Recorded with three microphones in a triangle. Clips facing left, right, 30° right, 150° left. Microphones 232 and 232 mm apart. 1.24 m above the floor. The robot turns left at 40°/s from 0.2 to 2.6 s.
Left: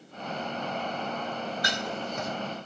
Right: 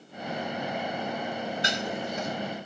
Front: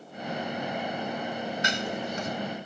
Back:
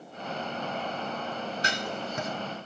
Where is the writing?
155° right, 2.5 m; by 2.3 s straight behind, 2.5 m.